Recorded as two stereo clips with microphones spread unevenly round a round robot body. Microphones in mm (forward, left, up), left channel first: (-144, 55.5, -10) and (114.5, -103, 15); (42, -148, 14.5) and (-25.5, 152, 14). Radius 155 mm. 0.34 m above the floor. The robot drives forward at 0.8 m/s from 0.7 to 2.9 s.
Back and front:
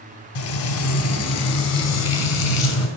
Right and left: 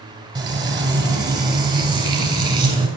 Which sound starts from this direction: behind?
Frying, at 0.3 s.